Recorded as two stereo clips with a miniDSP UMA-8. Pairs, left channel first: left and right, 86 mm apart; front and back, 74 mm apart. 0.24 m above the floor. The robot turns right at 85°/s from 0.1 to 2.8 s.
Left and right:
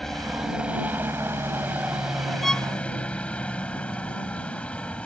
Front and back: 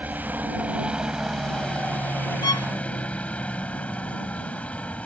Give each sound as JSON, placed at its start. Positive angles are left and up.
{"t": 0.0, "sound": "a helicopter", "azimuth_deg": 165}
{"t": 2.4, "sound": "a violin", "azimuth_deg": 0}